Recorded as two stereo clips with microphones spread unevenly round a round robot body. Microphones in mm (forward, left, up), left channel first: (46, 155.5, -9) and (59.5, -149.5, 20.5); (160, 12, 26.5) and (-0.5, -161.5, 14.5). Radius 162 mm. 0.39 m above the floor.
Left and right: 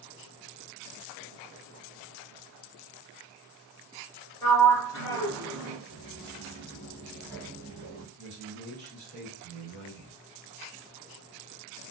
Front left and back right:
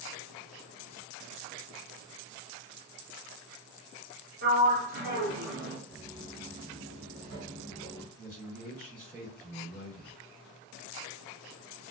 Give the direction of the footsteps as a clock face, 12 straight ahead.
7 o'clock.